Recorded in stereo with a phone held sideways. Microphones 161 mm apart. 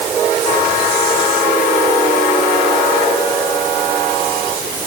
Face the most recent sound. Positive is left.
No sound to turn to.